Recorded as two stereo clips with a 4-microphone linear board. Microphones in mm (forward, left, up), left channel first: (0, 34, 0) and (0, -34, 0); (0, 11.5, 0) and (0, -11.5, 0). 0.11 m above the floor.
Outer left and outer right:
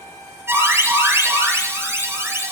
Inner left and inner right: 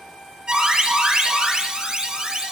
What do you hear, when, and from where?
0.5 s an alarm: 40° right (ahead or behind), 4 m